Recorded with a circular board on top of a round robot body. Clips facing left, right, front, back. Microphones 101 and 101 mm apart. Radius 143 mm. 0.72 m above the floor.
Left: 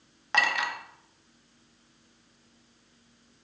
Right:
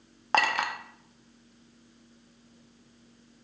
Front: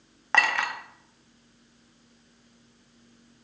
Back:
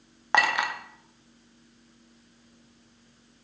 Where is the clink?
110° right, 0.6 m.